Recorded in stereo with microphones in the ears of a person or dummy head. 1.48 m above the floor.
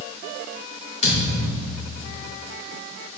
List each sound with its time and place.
1.0 s a thud: 35° left (ahead or behind), 2.5 m